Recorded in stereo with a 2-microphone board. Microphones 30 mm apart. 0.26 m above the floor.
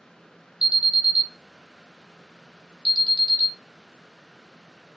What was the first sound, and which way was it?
An alarm, 40° right (ahead or behind).